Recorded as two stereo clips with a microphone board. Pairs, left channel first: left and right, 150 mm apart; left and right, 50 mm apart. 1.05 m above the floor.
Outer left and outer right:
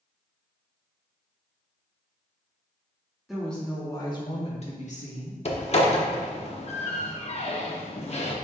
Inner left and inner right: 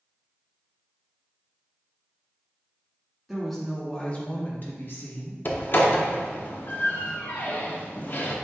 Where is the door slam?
45° left (ahead or behind), 0.6 m.